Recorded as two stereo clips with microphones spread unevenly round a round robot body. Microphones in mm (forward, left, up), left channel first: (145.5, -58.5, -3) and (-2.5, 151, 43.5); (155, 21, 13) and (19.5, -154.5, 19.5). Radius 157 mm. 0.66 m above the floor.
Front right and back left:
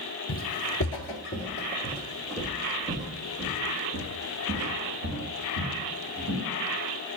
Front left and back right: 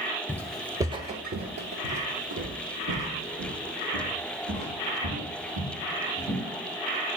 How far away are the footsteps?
About 0.9 m.